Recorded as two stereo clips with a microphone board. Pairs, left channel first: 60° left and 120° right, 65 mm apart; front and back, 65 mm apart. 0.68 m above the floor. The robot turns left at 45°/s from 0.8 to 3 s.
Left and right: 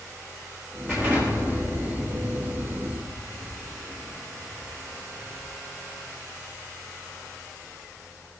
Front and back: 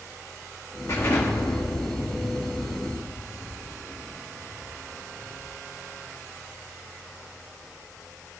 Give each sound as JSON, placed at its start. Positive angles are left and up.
{"t": 0.9, "sound": "an explosion", "azimuth_deg": -40, "distance_m": 7.0}